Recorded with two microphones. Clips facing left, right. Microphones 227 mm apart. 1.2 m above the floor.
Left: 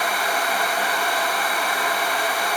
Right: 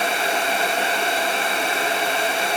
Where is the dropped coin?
No dropped coin in this recording.